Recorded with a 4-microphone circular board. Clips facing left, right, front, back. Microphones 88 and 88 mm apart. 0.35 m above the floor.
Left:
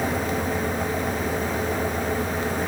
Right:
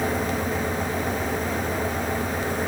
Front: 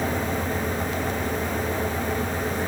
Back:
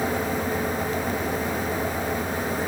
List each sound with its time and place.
Only background noise.